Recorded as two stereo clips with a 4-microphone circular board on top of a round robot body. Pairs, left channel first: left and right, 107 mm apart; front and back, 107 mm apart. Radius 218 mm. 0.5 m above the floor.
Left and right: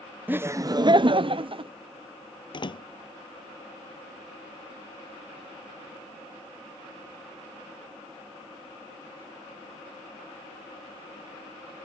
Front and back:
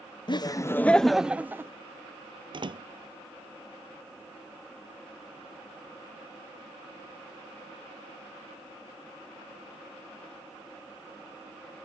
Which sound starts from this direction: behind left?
A door slam, at 2.5 s.